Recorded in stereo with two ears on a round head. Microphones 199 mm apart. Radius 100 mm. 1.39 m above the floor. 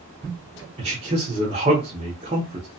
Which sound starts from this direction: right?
A man speaking, at 0.8 s.